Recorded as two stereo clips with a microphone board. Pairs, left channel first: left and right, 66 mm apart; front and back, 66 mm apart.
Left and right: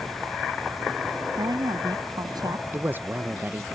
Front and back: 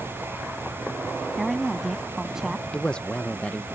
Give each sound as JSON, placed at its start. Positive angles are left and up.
{"t": 1.4, "sound": "a woman speaking", "azimuth_deg": -90}
{"t": 2.7, "sound": "a man speaking", "azimuth_deg": -65}